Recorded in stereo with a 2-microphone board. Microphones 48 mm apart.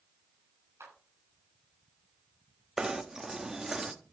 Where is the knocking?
10° right (ahead or behind), 0.9 m.